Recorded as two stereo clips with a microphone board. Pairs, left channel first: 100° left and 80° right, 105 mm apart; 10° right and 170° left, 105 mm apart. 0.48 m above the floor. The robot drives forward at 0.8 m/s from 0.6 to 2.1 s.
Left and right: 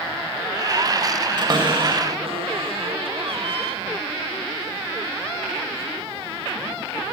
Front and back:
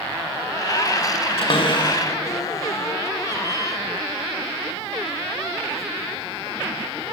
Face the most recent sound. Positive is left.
turn(degrees=-65)